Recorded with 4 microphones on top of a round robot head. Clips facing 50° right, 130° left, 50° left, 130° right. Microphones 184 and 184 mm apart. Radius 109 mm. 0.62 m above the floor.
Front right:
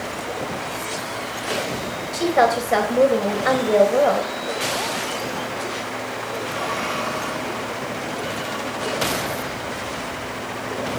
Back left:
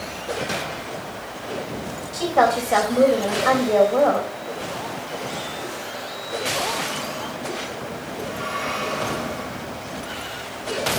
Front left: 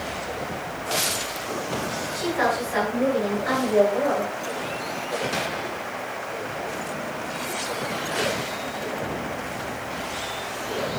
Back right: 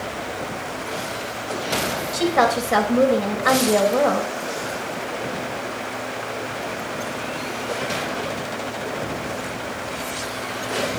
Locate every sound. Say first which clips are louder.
2.1 s a woman speaking: front right 1 dB, back right 5 dB; 125° right, 3.5 m